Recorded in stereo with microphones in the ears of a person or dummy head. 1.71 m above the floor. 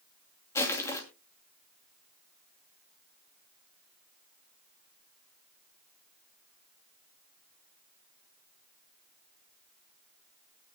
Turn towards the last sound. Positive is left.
turn(degrees=20)  # may be behind; listen again after turning